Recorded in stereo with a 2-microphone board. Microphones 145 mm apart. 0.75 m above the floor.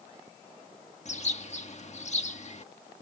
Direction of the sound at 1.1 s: 50° left (ahead or behind).